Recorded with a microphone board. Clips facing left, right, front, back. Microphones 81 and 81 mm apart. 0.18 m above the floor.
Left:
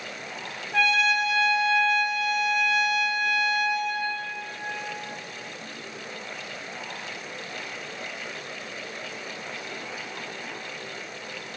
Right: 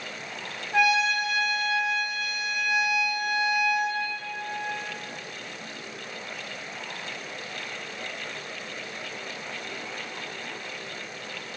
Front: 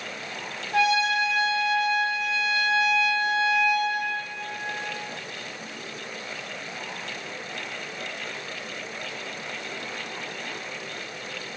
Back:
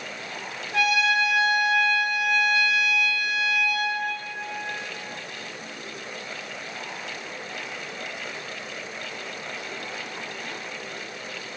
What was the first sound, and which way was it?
A trumpet, 20° right.